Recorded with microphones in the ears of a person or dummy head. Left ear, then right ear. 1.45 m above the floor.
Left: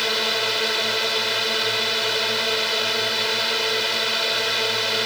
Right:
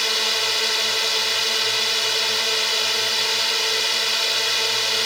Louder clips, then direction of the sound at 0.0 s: Right 1 dB; 35° right (ahead or behind).